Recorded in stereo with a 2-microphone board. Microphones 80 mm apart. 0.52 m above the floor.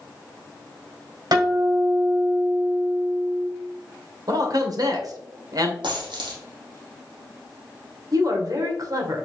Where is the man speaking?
55° right (ahead or behind), 1.8 m.